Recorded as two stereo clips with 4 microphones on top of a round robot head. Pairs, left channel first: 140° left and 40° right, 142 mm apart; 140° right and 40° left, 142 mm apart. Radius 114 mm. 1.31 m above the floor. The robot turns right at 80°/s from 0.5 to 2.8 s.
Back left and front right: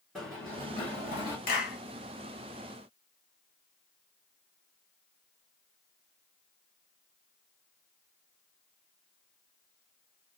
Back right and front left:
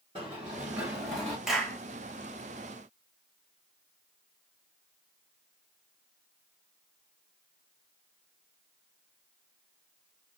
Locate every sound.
0.1 s running footsteps: 50° left, 1.3 m; by 1.4 s 155° left, 1.5 m
1.5 s a clap: 125° left, 1.3 m; by 1.8 s 150° left, 1.3 m